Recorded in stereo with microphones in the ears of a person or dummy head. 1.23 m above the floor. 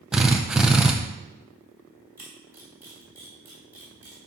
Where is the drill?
5° right (ahead or behind), 0.5 m.